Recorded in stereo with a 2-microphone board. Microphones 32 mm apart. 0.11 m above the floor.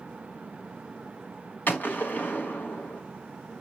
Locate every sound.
1.7 s a gunshot: 65° left (ahead or behind), 3.5 m